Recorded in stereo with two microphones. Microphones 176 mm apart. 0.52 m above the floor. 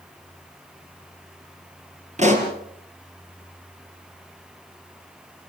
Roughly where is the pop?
Right.